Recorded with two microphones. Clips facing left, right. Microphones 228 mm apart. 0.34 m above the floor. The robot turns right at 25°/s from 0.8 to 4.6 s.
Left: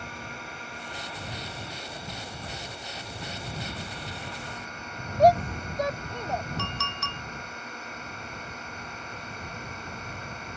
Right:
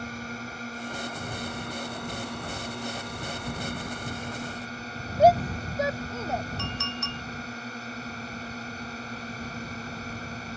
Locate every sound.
0.0 s a drone: 135° right; by 10.6 s 40° right
5.2 s a shout: 5° right (ahead or behind)
6.6 s a clink: 70° left (ahead or behind)